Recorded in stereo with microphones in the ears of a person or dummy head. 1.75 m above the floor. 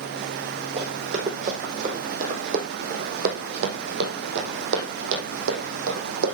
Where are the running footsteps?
35° right (ahead or behind), 5 m; by 6.3 s 65° right (ahead or behind), 4.5 m.